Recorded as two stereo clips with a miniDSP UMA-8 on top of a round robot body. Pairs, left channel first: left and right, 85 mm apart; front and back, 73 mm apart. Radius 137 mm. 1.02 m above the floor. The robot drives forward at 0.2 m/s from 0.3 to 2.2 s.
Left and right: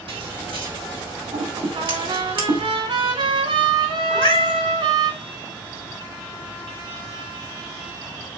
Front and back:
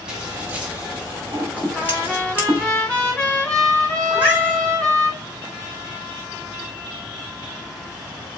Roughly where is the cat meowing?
Left.